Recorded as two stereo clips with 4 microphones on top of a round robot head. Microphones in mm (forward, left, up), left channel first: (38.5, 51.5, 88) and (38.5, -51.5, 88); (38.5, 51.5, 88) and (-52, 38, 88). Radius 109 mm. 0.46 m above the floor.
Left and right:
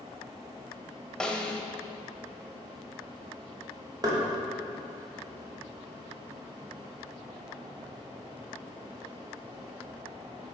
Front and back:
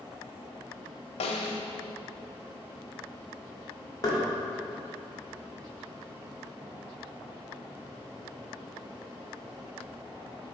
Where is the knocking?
45° right, 1.4 m.